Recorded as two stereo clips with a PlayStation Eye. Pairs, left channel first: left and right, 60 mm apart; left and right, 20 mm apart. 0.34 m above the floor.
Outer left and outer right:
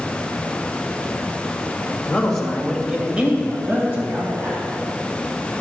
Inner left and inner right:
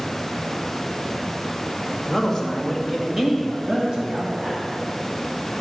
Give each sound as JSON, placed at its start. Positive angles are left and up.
{"t": 2.1, "sound": "a man speaking", "side_deg": 15, "distance_m": 1.8}